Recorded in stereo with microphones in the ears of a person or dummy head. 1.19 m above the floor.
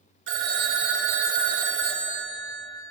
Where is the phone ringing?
80° right, 1.0 m.